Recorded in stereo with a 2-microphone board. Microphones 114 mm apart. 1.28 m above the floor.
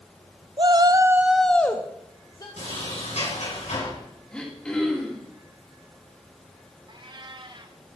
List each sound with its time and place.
0.6 s a shout: 45° right (ahead or behind), 0.7 m; by 2.5 s 35° left (ahead or behind), 1.2 m
2.6 s a sliding door: 75° left (ahead or behind), 6.5 m
4.3 s throat clearing: 10° left (ahead or behind), 2.5 m
6.9 s a cat meowing: 45° right (ahead or behind), 0.8 m